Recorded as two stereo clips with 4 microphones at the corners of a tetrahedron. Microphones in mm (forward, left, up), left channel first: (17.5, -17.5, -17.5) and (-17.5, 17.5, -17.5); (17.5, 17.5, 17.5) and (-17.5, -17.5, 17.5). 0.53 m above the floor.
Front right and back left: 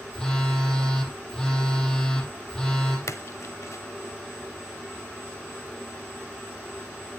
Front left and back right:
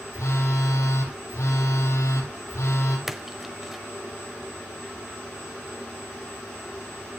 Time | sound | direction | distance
0.1 | a phone buzzing | 35° left | 5 m
3.1 | a splash | 50° right | 1.0 m